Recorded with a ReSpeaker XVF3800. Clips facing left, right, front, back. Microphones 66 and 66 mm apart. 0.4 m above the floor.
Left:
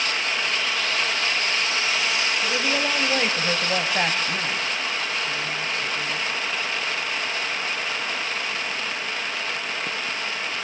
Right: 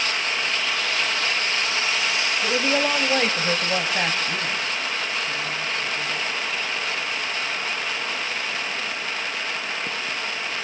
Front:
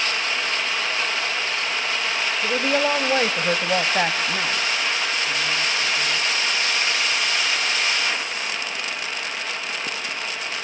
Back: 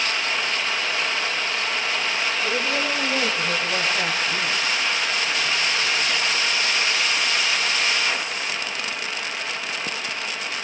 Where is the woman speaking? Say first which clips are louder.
Right 2 dB, front 7 dB; 45° right, 2.5 m; by 6.2 s 50° left, 5 m.